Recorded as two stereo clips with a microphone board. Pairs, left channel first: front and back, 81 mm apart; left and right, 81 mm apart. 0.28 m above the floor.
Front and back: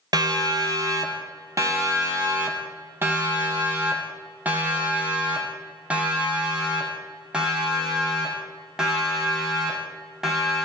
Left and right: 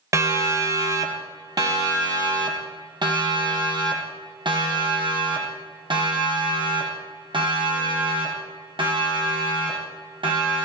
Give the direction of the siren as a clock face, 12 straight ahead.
5 o'clock.